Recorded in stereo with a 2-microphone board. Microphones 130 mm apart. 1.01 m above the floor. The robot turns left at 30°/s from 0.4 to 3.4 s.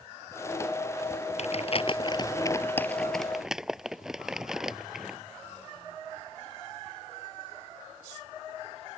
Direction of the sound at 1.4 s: 55° left (ahead or behind).